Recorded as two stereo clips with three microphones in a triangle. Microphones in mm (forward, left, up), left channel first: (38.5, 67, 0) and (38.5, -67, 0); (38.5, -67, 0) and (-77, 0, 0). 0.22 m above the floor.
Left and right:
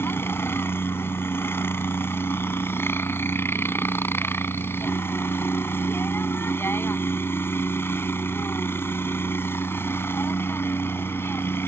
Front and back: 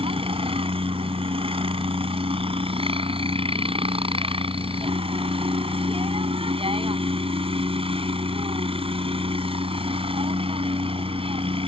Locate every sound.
0.0 s a helicopter: 155° left